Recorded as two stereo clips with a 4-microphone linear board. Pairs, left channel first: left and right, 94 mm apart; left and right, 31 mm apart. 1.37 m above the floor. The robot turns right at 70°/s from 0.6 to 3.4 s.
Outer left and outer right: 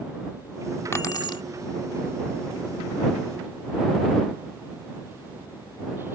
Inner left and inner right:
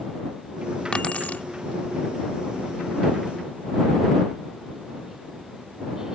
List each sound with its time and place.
0.9 s keys jangling: 30° left; by 1.4 s 65° left